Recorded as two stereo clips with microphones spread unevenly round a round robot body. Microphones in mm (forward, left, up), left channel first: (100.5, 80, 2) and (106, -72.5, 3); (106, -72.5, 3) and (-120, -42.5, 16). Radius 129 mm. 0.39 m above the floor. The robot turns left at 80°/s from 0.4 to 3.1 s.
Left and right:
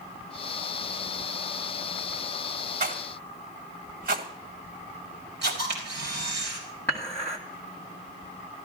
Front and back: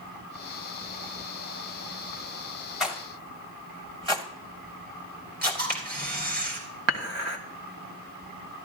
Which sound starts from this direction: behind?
Dishes clattering, at 6.9 s.